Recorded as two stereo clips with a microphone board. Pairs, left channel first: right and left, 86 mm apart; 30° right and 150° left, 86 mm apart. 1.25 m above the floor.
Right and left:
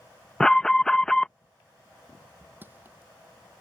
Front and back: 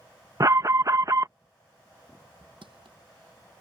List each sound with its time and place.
0.4 s an alarm: 170° right
2.6 s crushing: 155° left